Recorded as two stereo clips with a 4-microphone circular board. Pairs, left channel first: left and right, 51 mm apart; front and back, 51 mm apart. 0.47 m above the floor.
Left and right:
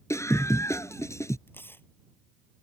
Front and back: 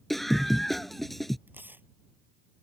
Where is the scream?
85° left.